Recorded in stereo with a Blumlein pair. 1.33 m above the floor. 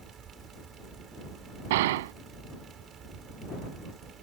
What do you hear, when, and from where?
0.0 s a fan: 25° right
1.7 s a gunshot: 55° right